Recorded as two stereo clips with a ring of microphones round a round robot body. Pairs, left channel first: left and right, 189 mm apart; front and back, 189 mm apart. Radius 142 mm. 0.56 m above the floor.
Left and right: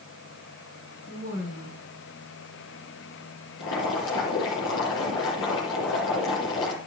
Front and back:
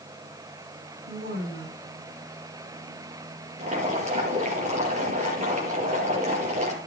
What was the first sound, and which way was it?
A woman speaking, 150° left.